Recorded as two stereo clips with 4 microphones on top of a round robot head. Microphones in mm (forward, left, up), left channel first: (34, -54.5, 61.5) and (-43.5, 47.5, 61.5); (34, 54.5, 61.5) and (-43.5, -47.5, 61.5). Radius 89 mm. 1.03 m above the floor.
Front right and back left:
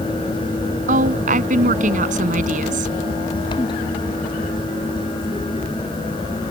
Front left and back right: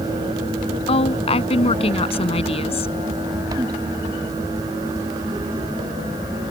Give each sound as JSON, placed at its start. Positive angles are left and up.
{"t": 0.9, "sound": "a woman speaking", "azimuth_deg": 100}